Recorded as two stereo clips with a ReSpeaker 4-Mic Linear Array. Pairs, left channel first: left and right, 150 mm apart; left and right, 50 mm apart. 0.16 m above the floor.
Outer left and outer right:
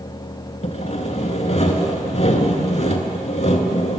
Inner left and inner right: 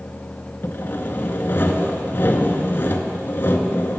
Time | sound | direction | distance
0.6 | sawing | 50° left (ahead or behind) | 0.6 m